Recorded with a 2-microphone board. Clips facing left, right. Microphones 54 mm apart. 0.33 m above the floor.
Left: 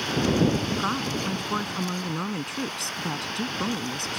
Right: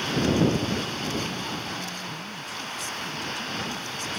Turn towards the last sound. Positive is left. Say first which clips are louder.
# left 3 dB
turn(degrees=70)  # may be behind; listen again after turning